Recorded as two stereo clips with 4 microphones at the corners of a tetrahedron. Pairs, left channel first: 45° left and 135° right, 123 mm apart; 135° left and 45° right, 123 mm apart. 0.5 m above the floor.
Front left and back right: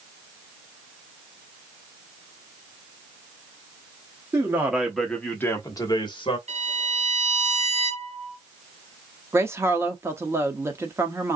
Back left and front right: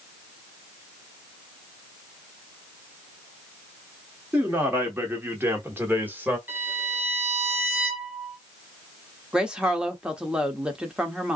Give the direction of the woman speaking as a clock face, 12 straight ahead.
4 o'clock.